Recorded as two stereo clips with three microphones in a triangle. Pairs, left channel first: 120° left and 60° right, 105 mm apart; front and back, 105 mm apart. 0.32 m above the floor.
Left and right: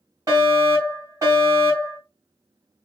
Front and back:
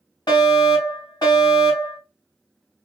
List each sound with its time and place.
0.3 s a fire alarm: 20° right, 2.5 m